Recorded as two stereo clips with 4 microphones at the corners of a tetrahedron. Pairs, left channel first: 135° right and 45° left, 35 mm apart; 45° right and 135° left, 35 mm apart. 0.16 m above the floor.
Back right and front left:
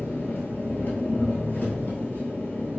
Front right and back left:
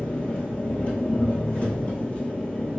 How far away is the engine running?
About 1.3 m.